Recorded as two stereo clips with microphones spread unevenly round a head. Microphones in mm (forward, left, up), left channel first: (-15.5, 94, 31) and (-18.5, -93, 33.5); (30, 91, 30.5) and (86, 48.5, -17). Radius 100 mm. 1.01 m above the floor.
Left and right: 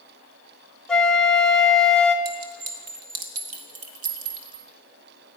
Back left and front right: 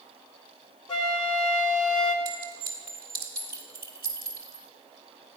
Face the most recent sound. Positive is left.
turn(degrees=-90)